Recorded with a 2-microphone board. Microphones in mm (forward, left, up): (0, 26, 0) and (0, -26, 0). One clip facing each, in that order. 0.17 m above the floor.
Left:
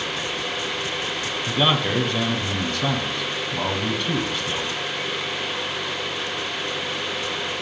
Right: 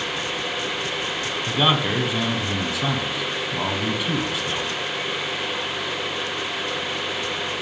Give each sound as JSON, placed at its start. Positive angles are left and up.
{"t": 1.5, "sound": "a man speaking", "side_deg": -5, "distance_m": 1.0}